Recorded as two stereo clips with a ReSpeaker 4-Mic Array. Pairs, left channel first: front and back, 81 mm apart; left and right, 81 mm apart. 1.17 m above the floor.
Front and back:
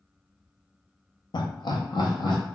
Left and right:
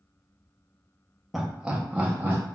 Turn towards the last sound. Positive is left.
turn(degrees=-20)